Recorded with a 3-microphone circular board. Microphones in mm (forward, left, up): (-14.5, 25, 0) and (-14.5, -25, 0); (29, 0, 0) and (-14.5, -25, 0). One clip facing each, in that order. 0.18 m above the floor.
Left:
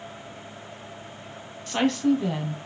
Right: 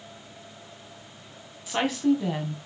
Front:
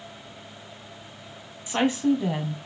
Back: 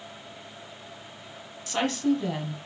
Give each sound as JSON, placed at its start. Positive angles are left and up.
{"t": 1.7, "sound": "a woman speaking", "azimuth_deg": -15, "distance_m": 1.6}